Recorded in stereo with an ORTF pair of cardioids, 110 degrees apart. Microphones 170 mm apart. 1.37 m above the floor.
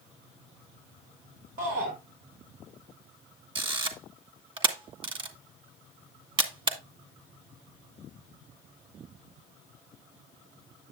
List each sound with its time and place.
1.6 s a shout: 60° right, 3.5 m
3.5 s a camera shutter: 30° right, 1.7 m